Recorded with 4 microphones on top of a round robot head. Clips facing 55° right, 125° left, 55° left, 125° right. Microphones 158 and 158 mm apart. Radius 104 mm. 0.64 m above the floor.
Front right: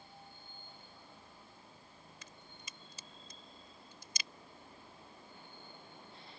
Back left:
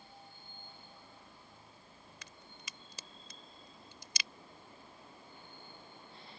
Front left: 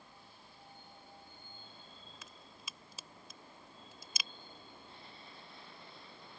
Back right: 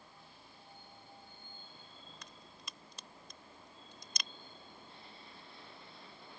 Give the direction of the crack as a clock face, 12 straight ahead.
7 o'clock.